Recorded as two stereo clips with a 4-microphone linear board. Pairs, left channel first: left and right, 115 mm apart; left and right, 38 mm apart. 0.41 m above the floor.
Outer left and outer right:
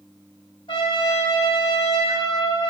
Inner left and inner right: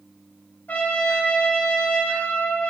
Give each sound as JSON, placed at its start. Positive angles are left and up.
{"t": 0.7, "sound": "a trumpet", "side_deg": 45, "distance_m": 1.3}